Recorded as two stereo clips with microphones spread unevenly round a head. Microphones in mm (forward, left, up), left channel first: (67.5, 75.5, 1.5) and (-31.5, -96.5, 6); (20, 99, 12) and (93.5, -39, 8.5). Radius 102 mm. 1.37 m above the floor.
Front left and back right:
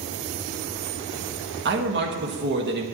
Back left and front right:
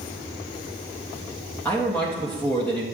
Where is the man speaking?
160° right, 1.4 m.